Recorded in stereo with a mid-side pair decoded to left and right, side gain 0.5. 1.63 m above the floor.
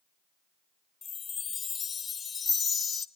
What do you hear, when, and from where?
1.0 s a chime: 40° left, 1.1 m